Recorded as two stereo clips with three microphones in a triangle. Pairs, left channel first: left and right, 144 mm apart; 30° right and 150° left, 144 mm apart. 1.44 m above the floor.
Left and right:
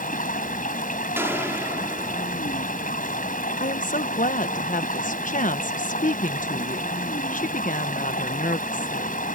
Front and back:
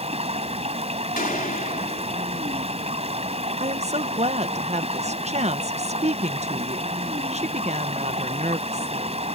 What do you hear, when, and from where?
0.0 s running water: 110° left
1.2 s a gunshot: 15° right
3.6 s a woman speaking: 110° left